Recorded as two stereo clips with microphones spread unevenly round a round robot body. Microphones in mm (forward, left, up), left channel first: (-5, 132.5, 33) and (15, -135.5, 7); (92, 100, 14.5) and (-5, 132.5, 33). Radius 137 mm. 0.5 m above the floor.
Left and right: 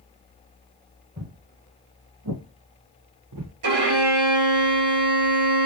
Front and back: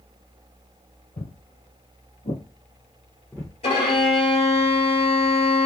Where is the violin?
70° right, 2.5 m.